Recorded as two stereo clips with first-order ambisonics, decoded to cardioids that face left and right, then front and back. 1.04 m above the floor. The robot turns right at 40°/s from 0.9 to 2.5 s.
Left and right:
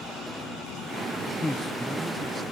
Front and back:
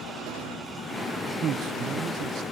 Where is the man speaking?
160° left, 0.6 m; by 2.4 s 155° right, 0.6 m.